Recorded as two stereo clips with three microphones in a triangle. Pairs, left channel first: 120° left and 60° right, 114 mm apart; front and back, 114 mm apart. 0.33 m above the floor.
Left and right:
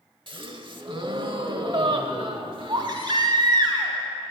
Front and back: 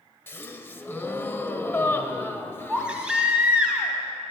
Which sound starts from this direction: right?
A baby crying, at 2.7 s.